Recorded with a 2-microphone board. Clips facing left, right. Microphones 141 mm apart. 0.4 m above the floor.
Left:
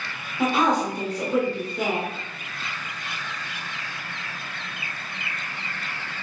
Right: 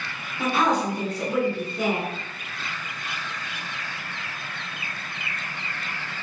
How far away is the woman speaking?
About 1.5 m.